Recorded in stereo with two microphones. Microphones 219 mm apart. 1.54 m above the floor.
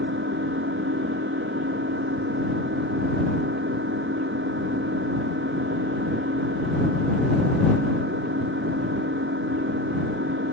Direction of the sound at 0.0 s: 60° right (ahead or behind).